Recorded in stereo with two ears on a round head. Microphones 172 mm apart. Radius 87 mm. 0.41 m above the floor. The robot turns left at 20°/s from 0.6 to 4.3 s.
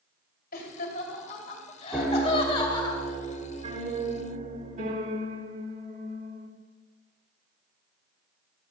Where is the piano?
10° right, 1.1 m; by 6.5 s 55° right, 1.1 m.